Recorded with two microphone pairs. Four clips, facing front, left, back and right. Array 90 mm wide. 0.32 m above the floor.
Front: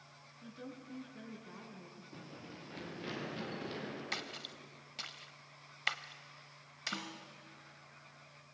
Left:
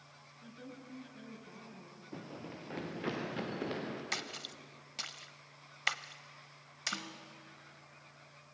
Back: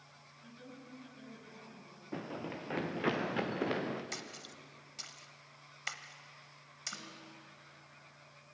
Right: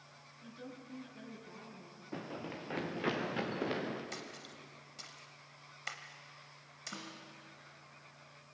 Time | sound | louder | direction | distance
0.4 | a woman speaking | right 1 dB, front 4 dB | 15° right | 4 m
2.1 | running footsteps | right 4 dB, back 12 dB | 145° right | 1.5 m
4.1 | a splash | left 4 dB, front 2 dB | 65° left | 0.6 m
6.9 | a snare drum | left 3 dB, front 6 dB | 20° left | 2 m